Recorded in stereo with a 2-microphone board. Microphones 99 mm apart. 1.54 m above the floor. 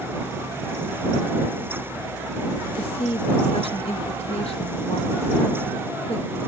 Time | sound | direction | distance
2.8 | a woman speaking | 80° left | ?